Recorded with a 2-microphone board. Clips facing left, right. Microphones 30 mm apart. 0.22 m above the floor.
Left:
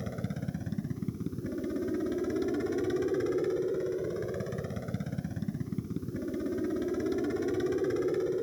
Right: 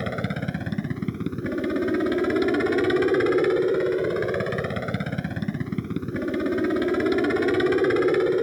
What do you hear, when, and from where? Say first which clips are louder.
0.0 s a helicopter: right 9 dB; 65° right (ahead or behind)